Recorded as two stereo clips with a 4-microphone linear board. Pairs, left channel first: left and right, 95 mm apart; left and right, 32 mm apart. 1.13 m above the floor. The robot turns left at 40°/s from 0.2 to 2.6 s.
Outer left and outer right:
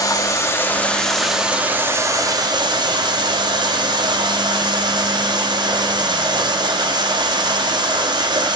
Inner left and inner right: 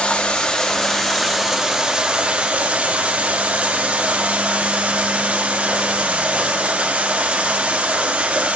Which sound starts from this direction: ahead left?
Running water, at 0.0 s.